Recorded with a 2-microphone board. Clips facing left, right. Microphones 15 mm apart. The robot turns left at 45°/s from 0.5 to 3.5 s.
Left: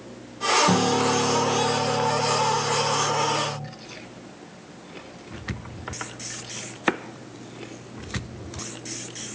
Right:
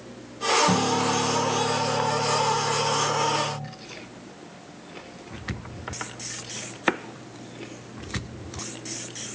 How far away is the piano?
About 1.5 m.